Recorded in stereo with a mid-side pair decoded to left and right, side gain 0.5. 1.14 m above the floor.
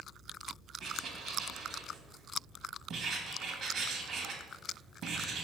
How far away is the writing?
About 1.1 m.